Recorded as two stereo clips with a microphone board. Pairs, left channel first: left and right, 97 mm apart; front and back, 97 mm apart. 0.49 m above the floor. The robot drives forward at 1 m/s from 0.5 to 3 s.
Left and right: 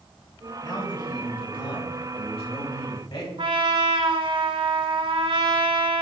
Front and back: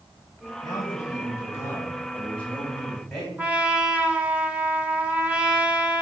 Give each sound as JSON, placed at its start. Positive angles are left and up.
{"t": 0.6, "sound": "a man speaking", "azimuth_deg": 45, "distance_m": 4.0}
{"t": 3.4, "sound": "a trumpet", "azimuth_deg": -105, "distance_m": 1.0}